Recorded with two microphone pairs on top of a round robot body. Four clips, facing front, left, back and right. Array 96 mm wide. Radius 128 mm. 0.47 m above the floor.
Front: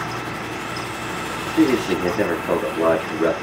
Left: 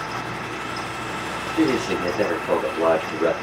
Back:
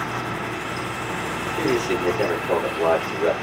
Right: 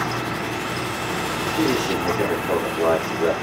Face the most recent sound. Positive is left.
turn(degrees=15)